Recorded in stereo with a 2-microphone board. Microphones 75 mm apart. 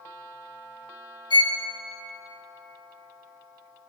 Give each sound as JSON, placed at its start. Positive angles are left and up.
{"t": 1.3, "sound": "a violin", "side_deg": 85, "distance_m": 0.7}